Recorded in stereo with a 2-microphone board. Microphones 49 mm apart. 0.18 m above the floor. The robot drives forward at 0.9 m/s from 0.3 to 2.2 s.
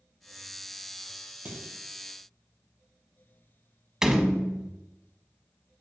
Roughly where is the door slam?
Centre.